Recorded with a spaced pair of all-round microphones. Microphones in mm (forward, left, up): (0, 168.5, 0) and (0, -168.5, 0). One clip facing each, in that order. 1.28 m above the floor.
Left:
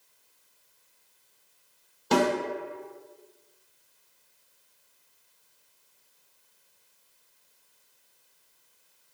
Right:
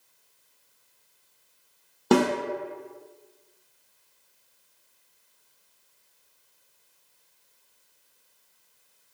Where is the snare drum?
65° right (ahead or behind), 0.9 m.